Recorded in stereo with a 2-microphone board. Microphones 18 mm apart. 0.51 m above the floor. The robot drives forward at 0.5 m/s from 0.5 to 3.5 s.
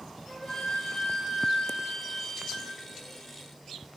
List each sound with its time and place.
0.3 s a flute: 40° left (ahead or behind), 0.9 m; by 2.7 s 55° left (ahead or behind), 0.7 m